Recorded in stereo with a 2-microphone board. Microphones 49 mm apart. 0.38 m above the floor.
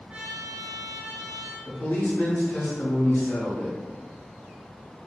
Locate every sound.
0.1 s a trumpet: 30° right (ahead or behind), 1.3 m
1.6 s a man speaking: 50° left (ahead or behind), 1.4 m